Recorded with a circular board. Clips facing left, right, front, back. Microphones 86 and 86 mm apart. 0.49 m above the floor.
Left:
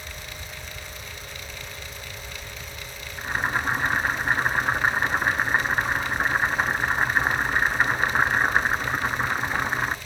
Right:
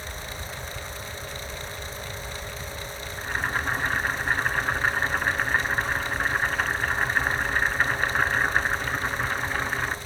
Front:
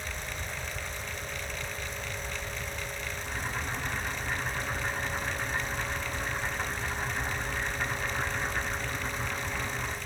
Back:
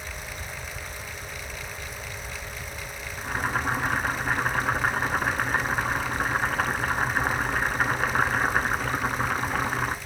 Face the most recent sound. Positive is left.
turn(degrees=160)